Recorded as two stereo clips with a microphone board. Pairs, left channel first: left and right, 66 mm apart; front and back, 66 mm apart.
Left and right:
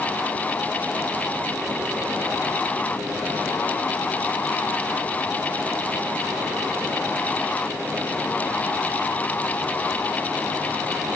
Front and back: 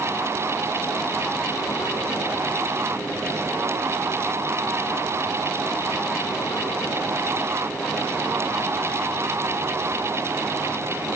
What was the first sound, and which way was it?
Only background noise.